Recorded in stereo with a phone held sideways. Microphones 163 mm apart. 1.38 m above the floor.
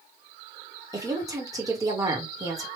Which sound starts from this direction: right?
A woman speaking, at 0.9 s.